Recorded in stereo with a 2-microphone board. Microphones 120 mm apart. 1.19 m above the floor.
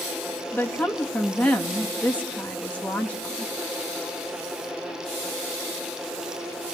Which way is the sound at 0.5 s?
10° left (ahead or behind).